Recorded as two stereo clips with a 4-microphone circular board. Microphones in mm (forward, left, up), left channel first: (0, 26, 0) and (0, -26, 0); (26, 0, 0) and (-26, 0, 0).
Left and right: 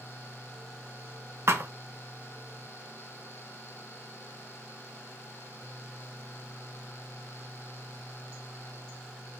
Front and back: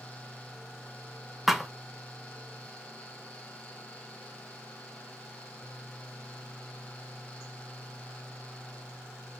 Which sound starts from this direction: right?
A thud, at 1.5 s.